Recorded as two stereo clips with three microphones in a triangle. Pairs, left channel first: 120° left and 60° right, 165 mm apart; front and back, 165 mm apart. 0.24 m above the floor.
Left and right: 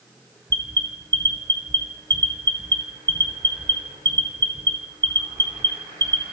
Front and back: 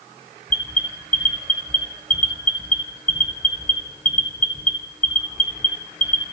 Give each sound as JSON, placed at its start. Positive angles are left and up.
{"t": 0.5, "sound": "an alarm", "azimuth_deg": 0, "distance_m": 2.0}